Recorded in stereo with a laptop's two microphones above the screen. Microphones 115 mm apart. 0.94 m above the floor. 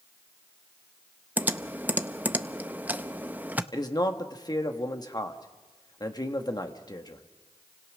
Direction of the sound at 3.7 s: 35° left (ahead or behind).